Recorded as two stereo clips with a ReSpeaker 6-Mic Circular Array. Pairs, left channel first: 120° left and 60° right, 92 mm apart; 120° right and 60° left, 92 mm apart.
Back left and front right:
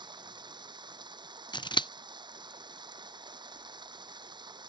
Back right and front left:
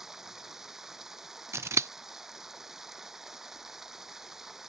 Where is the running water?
25° right.